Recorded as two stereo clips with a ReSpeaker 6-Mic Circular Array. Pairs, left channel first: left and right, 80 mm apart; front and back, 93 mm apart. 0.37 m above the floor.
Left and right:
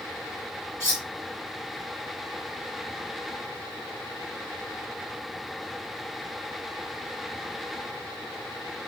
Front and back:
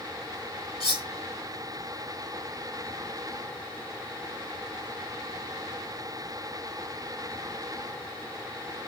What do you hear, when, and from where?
0.8 s cutlery clinking: 140° right, 3 m